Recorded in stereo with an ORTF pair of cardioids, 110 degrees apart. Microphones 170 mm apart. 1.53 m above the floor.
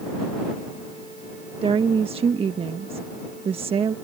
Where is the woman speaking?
35° right.